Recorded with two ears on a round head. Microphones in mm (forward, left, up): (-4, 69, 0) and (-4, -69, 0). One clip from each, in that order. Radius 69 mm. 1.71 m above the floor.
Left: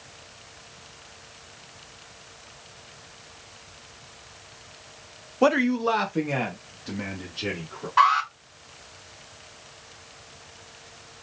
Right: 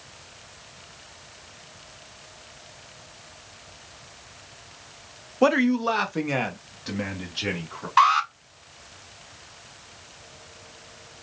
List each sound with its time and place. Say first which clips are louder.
5.4 s a man speaking: even; centre (ahead or behind), 0.6 m; by 7.9 s 35° right (ahead or behind), 2.5 m
8.0 s an alarm: right 1 dB; 50° right (ahead or behind), 4.5 m